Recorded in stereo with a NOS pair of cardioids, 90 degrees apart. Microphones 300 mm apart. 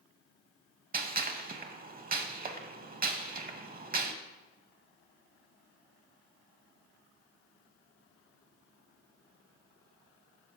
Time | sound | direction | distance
0.9 | a gunshot | 30° right | 0.9 m